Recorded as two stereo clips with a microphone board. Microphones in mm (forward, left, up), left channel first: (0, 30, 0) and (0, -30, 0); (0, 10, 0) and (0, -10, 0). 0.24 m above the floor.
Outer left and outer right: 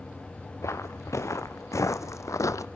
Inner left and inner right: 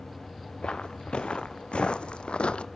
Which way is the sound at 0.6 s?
55° left (ahead or behind).